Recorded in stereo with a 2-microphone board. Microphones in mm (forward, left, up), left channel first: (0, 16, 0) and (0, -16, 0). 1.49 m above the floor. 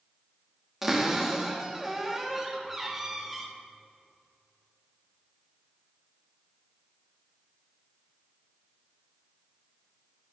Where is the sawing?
No sawing in this recording.